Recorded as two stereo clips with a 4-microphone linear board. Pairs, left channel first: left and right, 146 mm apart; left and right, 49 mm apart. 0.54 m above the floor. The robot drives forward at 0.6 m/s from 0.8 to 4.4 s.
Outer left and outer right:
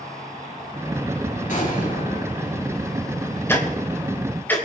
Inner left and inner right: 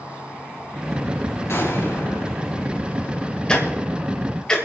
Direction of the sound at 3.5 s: 15° left (ahead or behind).